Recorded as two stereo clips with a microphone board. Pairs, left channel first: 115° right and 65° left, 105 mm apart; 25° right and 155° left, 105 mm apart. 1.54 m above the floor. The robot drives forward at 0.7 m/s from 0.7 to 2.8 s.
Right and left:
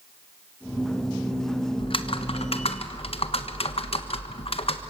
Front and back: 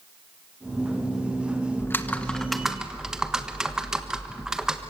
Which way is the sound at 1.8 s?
85° right.